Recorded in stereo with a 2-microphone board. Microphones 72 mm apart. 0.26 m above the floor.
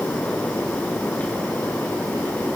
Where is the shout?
No shout in this recording.